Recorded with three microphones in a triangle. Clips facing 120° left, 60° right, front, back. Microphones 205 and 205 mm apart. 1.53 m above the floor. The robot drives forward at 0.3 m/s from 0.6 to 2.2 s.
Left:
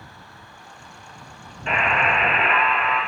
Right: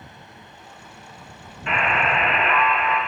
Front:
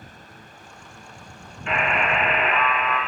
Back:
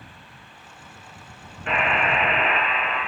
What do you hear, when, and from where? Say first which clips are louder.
1.7 s a buzzer: even, even; 165° left, 1.1 m; by 3.0 s 170° left, 1.2 m